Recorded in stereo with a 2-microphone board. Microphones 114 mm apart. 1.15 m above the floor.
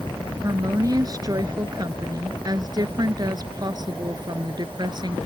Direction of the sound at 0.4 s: 30° right (ahead or behind).